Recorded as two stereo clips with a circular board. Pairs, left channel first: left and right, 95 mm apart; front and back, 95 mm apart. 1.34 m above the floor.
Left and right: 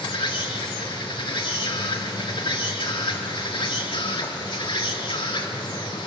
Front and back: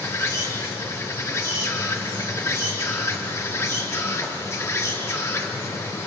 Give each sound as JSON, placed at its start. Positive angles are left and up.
{"t": 0.0, "sound": "an insect", "azimuth_deg": 60, "distance_m": 3.0}